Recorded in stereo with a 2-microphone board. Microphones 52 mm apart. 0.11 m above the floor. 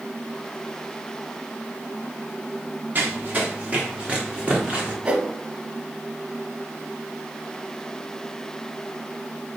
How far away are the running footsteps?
About 2 m.